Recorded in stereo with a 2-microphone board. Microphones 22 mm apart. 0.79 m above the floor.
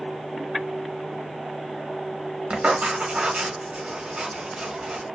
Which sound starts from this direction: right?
Writing, at 2.5 s.